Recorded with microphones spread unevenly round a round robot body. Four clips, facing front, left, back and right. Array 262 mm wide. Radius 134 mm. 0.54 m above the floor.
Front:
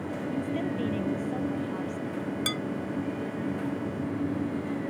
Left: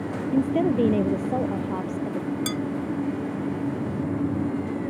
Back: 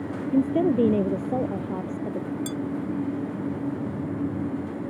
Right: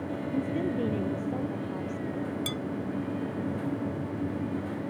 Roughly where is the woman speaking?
Behind left.